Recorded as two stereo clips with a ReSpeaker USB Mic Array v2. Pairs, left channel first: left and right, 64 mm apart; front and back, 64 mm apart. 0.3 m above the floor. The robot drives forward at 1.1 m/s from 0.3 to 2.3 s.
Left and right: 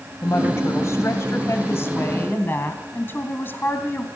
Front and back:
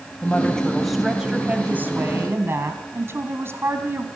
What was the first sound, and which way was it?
A woman speaking, 65° left.